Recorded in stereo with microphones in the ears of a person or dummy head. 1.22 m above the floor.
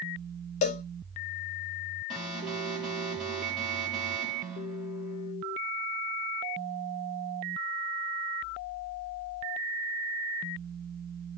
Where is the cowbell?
25° left (ahead or behind), 0.6 m.